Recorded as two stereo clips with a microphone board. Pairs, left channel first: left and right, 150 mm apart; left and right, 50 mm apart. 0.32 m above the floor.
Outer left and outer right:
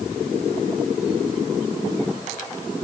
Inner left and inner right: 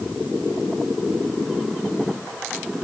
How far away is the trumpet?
No trumpet in this recording.